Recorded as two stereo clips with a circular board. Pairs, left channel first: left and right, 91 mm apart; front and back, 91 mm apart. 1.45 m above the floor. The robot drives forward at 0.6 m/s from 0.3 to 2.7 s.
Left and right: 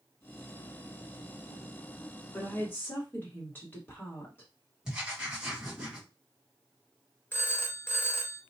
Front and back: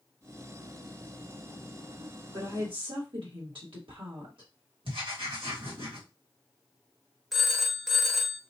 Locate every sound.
2.3 s a woman speaking: 155° left, 1.3 m
4.8 s writing: 175° right, 1.5 m
7.3 s a phone ringing: 90° left, 0.5 m